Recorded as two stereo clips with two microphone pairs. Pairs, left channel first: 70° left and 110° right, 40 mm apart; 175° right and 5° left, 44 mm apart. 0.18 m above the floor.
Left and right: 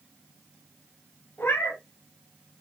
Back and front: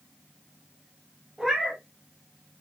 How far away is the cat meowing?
About 0.8 m.